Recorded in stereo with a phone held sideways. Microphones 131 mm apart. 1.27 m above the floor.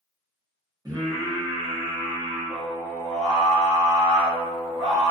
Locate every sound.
0.8 s singing: 25° right (ahead or behind), 0.9 m